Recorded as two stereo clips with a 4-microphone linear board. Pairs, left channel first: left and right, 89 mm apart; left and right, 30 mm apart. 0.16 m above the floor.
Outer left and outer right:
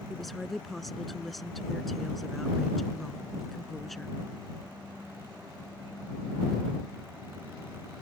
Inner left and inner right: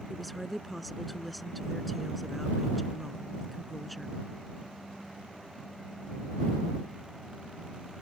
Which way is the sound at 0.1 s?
Centre (ahead or behind).